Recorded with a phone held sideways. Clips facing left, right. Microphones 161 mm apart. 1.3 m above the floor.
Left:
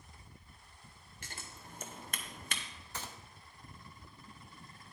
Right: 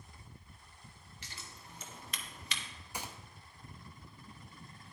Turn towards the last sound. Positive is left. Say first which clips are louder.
# right 2 dB
turn(degrees=-15)  # may be behind; listen again after turning